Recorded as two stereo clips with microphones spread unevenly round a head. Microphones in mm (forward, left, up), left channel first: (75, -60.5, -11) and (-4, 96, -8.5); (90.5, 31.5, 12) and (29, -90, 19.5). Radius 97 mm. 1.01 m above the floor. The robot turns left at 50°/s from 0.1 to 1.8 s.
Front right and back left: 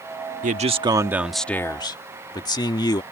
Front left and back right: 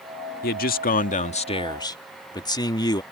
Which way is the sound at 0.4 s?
70° left.